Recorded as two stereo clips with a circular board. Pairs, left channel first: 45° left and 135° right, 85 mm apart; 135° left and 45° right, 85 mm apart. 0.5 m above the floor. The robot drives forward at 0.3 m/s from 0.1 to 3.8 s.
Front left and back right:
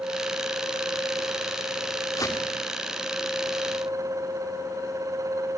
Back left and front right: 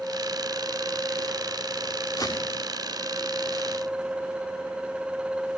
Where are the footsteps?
95° left, 6 m.